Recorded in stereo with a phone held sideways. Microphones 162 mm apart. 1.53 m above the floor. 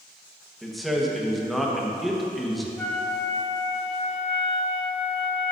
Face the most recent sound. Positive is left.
turn(degrees=10)  # may be behind; listen again after turning